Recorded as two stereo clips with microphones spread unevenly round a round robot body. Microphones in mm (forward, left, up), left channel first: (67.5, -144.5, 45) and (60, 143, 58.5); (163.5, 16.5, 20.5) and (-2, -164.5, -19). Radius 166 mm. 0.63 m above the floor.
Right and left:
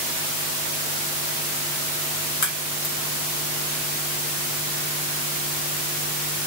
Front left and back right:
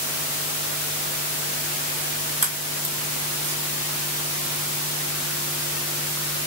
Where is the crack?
75° right, 3 m.